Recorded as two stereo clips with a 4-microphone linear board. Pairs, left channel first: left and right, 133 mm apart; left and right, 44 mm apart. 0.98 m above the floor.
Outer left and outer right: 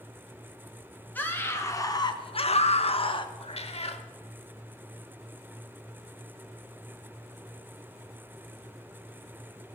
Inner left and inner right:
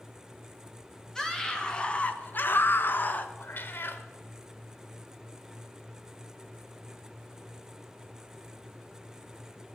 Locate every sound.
1.1 s a scream: 15° left (ahead or behind), 1.8 m; by 3.3 s 35° left (ahead or behind), 1.1 m
3.4 s a cat meowing: 50° left (ahead or behind), 0.9 m